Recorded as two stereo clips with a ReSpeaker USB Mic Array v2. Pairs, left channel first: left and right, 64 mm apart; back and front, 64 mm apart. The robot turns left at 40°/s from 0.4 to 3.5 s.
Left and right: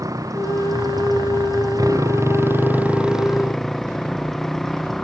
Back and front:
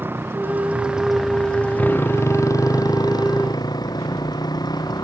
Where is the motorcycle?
60° right; by 5.0 s straight behind.